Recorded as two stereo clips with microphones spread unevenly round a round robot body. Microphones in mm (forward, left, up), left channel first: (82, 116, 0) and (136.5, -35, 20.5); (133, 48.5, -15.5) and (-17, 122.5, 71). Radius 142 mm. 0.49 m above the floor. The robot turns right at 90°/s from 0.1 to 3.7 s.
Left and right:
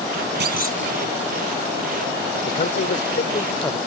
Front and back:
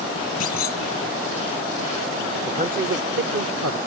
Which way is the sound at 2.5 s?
75° left.